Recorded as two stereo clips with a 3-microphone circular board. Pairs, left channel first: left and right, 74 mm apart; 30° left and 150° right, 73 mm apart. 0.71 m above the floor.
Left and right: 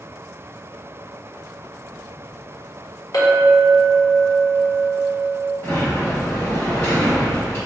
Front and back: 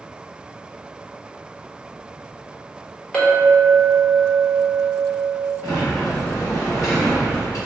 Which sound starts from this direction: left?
A clink, at 3.1 s.